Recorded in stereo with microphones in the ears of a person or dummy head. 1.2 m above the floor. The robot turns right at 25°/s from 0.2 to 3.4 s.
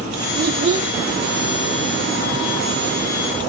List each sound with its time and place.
0.3 s a child speaking: 50° right (ahead or behind), 0.5 m; by 0.9 s 40° right (ahead or behind), 0.5 m